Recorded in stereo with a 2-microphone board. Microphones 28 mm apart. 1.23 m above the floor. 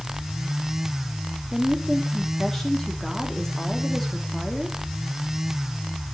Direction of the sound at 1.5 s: 5° left (ahead or behind).